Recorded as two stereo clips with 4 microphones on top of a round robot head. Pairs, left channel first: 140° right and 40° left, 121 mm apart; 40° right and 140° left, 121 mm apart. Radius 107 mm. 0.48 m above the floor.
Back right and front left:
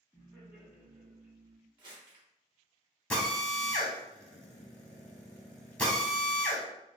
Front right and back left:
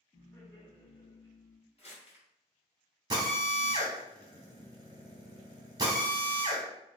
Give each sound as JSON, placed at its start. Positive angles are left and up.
{"t": 0.1, "sound": "laughter", "azimuth_deg": -5, "distance_m": 1.4}
{"t": 1.8, "sound": "crumpling", "azimuth_deg": -10, "distance_m": 1.7}
{"t": 3.1, "sound": "a drill", "azimuth_deg": 150, "distance_m": 1.2}